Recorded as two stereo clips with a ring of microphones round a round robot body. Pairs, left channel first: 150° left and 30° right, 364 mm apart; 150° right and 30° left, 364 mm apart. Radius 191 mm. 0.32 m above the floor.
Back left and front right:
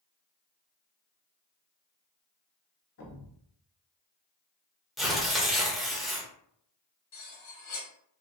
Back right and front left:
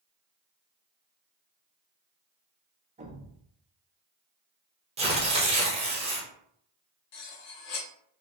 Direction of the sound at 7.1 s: 165° right.